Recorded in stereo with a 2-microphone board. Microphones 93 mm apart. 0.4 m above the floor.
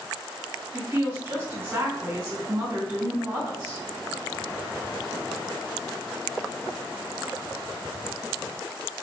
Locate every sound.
0.7 s a woman speaking: 20° right (ahead or behind), 1.2 m